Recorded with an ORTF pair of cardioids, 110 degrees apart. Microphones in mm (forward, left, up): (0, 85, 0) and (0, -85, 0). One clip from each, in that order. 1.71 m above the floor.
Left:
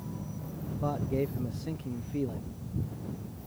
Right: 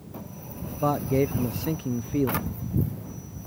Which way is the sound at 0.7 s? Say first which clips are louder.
Right 8 dB; 40° right.